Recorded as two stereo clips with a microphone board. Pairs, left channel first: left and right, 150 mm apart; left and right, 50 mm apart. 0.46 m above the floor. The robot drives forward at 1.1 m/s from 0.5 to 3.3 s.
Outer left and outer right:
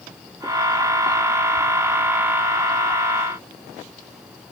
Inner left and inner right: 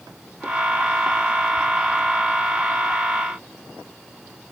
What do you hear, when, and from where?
Only background noise.